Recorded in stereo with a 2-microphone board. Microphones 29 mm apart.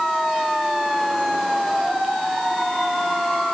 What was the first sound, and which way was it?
Only background noise.